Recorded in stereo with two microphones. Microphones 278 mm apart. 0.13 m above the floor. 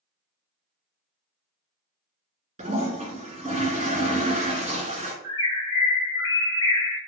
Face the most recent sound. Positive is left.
turn(degrees=50)  # may be behind; listen again after turning